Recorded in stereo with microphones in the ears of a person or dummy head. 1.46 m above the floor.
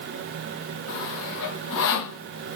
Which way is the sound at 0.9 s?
60° left (ahead or behind).